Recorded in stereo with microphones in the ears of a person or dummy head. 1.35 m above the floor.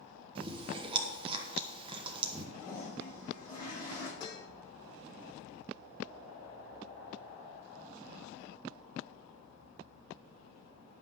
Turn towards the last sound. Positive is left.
turn(degrees=25)  # may be behind; listen again after turning